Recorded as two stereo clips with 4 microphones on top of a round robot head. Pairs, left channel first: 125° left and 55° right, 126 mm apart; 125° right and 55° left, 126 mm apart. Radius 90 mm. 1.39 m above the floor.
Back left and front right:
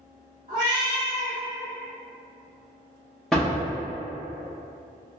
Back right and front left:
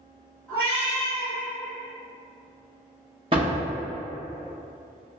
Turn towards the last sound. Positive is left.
turn(degrees=35)